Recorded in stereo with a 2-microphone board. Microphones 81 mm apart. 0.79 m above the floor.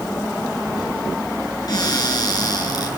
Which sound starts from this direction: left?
A cupboard door, at 1.7 s.